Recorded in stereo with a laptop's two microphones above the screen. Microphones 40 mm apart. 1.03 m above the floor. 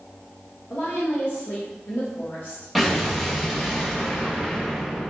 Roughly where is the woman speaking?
Left.